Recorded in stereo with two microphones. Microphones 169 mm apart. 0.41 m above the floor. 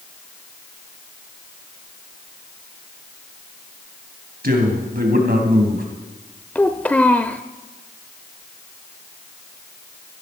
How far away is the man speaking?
About 3 m.